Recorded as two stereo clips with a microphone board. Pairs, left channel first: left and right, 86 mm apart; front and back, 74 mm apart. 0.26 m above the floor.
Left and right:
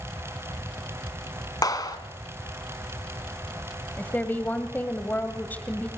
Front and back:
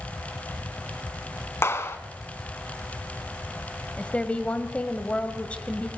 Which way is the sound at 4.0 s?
50° left.